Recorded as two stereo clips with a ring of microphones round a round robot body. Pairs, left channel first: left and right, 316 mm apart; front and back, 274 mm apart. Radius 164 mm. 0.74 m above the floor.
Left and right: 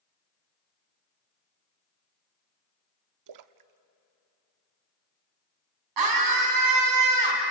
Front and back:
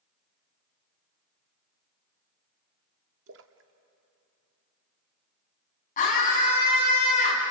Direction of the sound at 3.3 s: 125° right.